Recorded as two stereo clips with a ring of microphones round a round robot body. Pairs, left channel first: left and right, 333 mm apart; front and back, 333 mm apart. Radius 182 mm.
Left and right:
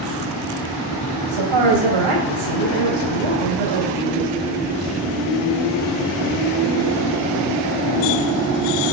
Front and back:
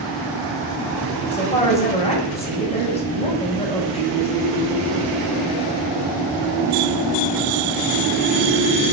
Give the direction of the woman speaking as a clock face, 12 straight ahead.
2 o'clock.